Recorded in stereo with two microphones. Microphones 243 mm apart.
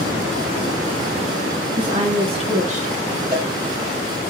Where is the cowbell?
40° right (ahead or behind), 5.5 m.